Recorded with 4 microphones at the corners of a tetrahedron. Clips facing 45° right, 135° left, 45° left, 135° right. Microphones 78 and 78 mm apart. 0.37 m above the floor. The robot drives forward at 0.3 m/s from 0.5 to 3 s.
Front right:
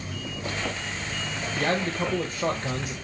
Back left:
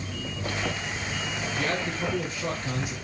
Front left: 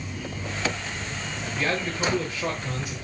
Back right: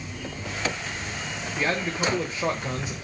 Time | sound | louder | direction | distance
1.6 | a man speaking | front right 4 dB, back right 1 dB | 55° right | 1.2 m